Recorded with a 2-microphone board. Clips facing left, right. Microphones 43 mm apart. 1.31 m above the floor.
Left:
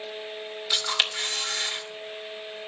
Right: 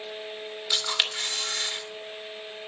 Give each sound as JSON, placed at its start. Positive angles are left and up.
{"t": 0.7, "sound": "a camera shutter", "side_deg": 5, "distance_m": 2.0}